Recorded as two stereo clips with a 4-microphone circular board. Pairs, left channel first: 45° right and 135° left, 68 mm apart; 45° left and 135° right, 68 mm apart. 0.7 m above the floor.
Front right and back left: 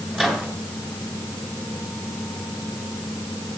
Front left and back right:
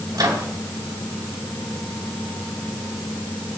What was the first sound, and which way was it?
A microwave, 145° right.